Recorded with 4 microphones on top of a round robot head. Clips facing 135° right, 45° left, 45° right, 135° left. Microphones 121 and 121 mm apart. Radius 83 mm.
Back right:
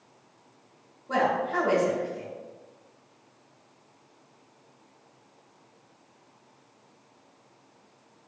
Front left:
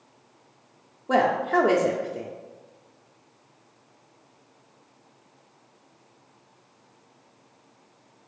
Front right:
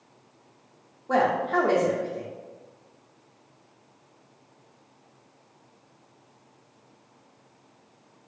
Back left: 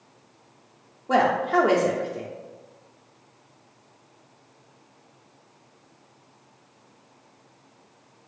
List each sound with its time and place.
1.1 s a woman speaking: 60° left, 0.5 m